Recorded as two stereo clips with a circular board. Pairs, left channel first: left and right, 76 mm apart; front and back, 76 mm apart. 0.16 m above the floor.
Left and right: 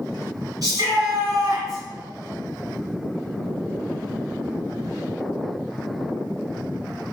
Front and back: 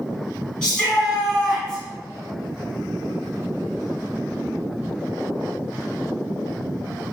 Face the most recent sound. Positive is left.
turn(degrees=-85)